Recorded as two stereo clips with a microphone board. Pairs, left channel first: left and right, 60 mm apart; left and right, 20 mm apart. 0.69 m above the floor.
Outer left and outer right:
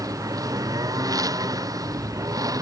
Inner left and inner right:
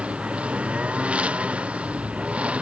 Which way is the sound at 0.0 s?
85° right.